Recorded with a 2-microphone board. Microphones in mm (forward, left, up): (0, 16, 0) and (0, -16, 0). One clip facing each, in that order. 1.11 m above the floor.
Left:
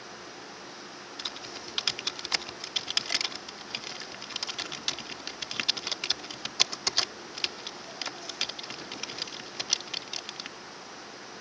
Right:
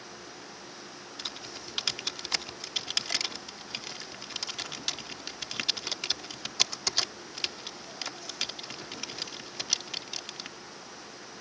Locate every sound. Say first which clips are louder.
1.2 s typing on a keyboard: left 1 dB; 10° left (ahead or behind)